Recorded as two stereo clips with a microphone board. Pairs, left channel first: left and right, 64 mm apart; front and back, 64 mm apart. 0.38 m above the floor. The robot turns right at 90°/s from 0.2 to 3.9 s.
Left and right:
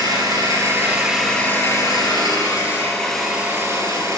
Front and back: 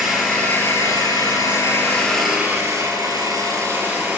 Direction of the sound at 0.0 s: 90° right.